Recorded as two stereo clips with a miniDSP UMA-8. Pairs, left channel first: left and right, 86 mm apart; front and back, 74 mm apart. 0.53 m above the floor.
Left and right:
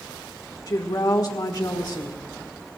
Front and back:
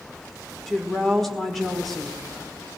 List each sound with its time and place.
0.7 s a woman speaking: 85° left, 1.7 m